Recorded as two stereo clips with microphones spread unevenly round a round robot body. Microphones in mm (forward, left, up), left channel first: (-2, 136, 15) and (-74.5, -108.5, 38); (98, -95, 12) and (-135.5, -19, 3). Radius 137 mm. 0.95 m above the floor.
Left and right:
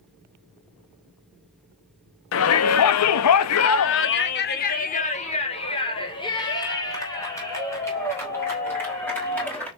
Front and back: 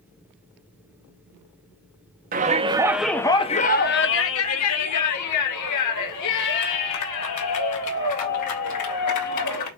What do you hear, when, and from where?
2.3 s a shout: 105° left, 1.2 m; by 9.7 s 10° right, 5.5 m